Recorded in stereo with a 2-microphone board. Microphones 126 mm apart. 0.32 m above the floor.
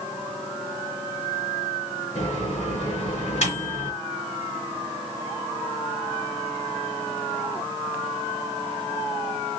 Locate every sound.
2.1 s a microwave: 70° left (ahead or behind), 3 m